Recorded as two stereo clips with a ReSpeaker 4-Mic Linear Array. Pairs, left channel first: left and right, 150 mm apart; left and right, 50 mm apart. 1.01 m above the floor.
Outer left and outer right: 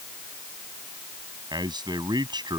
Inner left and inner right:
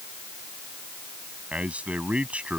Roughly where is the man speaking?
Right.